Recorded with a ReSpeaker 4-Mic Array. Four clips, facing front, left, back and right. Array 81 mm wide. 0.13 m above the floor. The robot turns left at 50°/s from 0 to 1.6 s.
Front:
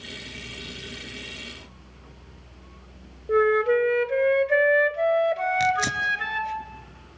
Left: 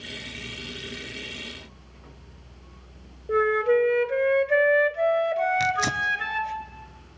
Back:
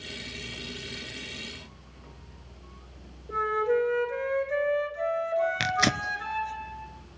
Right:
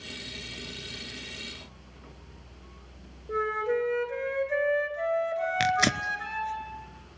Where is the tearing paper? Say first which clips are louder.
Left 1 dB, front 3 dB; 130° right, 0.9 m.